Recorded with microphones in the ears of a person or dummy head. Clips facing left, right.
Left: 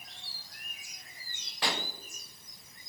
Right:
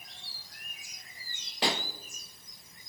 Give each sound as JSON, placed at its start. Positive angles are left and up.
{"t": 1.6, "sound": "a pop", "side_deg": -20, "distance_m": 1.1}